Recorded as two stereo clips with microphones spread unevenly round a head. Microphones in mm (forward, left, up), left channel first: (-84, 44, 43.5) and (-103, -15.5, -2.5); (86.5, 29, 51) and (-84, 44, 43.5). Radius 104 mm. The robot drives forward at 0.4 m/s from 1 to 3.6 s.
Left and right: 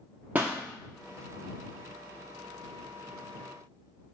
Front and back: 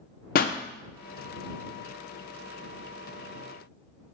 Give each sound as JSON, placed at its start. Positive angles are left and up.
{"t": 0.3, "sound": "a pop", "azimuth_deg": 5, "distance_m": 0.6}